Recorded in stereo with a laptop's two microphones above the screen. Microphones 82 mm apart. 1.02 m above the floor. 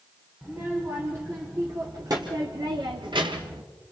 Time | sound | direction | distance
0.4 | a child speaking | 30° right (ahead or behind) | 2 m